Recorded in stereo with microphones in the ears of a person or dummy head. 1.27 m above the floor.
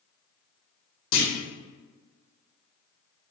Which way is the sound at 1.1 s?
65° left (ahead or behind).